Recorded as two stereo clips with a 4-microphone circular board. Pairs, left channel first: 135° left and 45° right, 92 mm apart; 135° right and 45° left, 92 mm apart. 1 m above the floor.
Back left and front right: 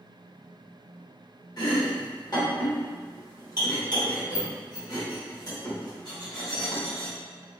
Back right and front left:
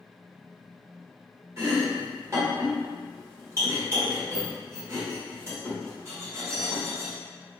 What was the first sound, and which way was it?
Chopping, 100° left.